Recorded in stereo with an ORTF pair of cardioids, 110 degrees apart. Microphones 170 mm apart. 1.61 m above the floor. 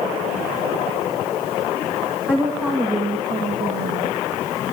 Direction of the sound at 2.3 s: 10° right.